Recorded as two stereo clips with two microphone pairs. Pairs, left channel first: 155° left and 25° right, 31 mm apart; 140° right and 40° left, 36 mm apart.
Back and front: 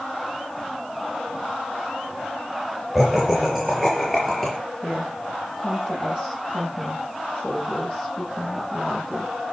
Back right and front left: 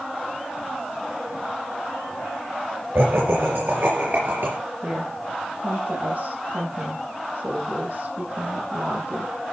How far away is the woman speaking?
About 8 m.